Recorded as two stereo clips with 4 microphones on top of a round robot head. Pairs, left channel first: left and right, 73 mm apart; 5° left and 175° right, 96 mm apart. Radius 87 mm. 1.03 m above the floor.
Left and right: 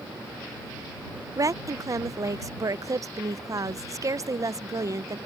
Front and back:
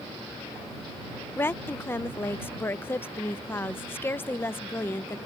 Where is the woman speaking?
60° right.